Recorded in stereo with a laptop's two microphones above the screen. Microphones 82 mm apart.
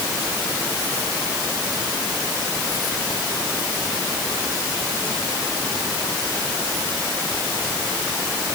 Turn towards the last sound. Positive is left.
No sound to turn to.